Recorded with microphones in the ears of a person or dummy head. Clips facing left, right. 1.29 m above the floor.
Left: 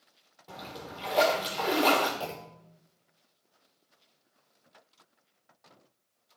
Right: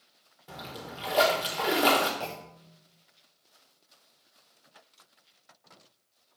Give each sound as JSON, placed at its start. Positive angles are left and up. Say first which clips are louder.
{"t": 0.5, "sound": "a splash", "louder": "right 1 dB", "side_deg": -5, "distance_m": 1.4}
{"t": 2.2, "sound": "a clunk", "louder": "even", "side_deg": 5, "distance_m": 0.7}